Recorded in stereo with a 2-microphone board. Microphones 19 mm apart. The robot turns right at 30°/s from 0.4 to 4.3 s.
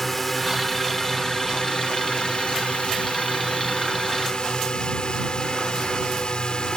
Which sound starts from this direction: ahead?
A drone, at 0.0 s.